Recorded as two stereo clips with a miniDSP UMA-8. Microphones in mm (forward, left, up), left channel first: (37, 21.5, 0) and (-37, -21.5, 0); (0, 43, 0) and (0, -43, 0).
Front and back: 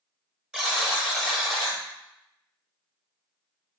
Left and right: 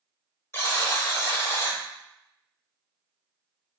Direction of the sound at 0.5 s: 130° left.